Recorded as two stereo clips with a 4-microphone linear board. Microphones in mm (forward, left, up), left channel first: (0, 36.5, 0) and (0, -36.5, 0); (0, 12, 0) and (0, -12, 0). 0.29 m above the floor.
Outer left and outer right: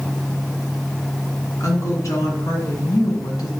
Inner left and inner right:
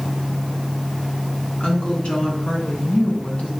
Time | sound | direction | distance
1.6 | a woman speaking | 45° left (ahead or behind) | 3 m